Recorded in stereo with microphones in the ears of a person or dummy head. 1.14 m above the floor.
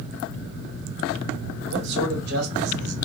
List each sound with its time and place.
1.7 s a man speaking: 60° right (ahead or behind), 1.6 m